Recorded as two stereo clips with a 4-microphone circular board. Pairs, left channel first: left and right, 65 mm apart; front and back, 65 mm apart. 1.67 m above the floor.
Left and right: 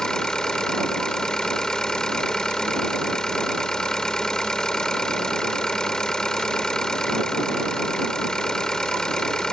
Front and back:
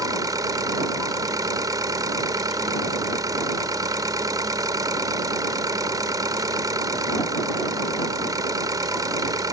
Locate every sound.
0.0 s an engine running: 170° left